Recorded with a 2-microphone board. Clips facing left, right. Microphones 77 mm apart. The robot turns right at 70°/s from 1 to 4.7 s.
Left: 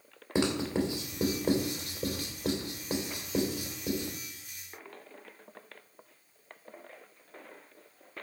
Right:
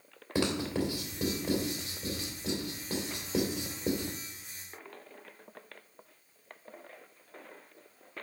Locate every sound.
0.3 s writing: 20° left (ahead or behind), 2.5 m; by 4.1 s 55° right (ahead or behind), 2.5 m